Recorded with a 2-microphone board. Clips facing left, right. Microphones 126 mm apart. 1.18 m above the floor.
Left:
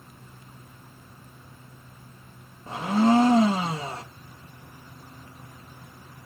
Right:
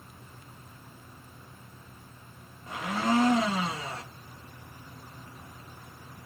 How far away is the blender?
About 0.6 m.